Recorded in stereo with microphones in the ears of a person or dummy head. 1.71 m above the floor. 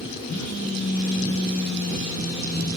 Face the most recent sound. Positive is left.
turn(degrees=55)  # may be behind; listen again after turning